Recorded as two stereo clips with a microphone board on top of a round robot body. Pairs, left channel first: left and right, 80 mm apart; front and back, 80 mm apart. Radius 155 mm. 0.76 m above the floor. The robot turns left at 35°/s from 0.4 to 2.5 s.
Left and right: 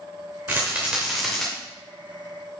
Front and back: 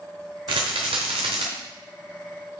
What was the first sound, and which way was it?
A rattle, 155° right.